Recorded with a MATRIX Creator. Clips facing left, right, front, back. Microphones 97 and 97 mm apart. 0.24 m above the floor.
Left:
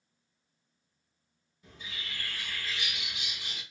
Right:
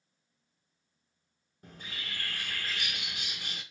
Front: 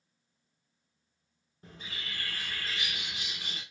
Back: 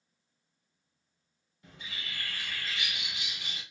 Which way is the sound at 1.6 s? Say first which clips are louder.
Right 1 dB, front 1 dB; 50° right.